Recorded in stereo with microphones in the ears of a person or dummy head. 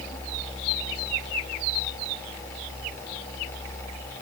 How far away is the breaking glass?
I don't hear breaking glass.